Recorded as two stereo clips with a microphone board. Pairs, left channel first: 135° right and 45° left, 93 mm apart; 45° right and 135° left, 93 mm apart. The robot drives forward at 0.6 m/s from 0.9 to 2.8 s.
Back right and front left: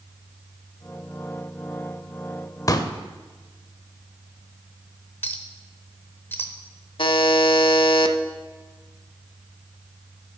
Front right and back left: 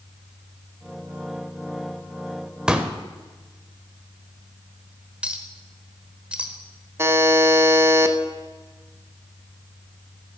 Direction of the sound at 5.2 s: 165° right.